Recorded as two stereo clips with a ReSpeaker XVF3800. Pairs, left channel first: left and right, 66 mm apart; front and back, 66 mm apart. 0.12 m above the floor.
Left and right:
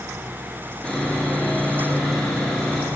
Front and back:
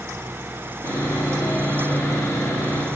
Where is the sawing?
20° left, 2.5 m.